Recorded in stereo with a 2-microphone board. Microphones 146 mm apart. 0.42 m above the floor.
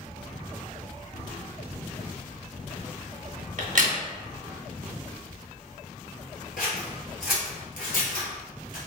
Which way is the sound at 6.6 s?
75° left (ahead or behind).